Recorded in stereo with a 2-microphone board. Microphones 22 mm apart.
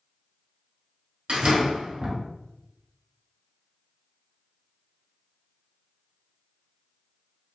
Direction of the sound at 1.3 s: 50° right (ahead or behind).